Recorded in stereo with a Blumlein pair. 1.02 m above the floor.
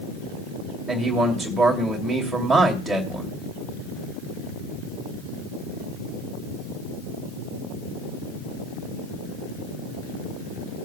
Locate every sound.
0.9 s a man speaking: 10° right, 2.5 m